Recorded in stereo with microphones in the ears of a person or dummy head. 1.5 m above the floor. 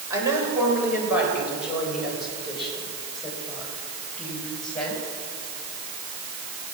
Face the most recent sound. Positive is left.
turn(degrees=5)  # may be behind; listen again after turning